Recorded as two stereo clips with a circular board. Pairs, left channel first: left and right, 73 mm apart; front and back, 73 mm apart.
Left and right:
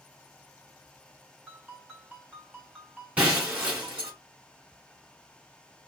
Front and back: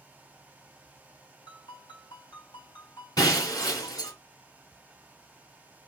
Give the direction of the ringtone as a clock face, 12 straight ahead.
12 o'clock.